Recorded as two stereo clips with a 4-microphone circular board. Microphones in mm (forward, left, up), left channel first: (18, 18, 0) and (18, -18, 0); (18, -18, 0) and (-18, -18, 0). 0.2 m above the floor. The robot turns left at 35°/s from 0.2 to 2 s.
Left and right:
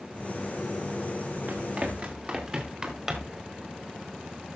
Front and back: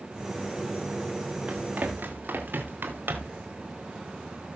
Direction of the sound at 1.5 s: 120° right.